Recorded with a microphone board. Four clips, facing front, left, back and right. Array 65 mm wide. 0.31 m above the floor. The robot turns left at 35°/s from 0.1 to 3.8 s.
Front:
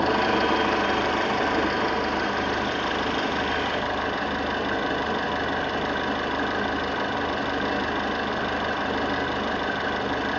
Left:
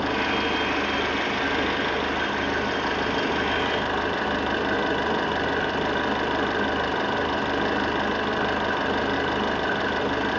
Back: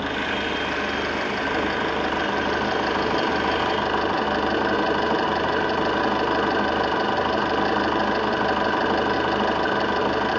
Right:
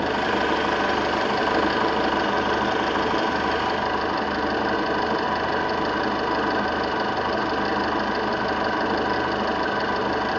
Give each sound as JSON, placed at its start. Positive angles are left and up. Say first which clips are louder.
{"t": 0.0, "sound": "an engine running", "louder": "right 2 dB, front 4 dB", "azimuth_deg": -40, "distance_m": 8.5}